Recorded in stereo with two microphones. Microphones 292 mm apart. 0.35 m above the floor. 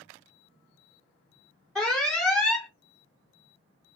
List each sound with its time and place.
1.8 s an alarm: centre (ahead or behind), 1.2 m